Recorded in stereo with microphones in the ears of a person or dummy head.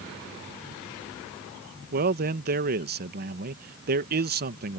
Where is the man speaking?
45° right (ahead or behind).